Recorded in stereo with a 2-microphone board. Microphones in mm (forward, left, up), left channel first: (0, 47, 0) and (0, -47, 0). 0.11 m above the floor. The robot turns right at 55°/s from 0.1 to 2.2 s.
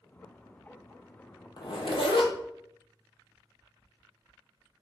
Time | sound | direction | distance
1.6 | a zipper | 55° left | 0.7 m